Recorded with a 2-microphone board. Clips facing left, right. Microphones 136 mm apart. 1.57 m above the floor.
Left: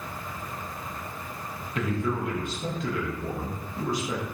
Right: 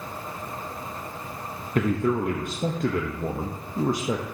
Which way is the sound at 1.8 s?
50° right (ahead or behind).